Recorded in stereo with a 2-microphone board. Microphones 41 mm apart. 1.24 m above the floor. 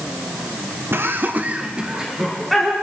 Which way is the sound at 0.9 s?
65° right (ahead or behind).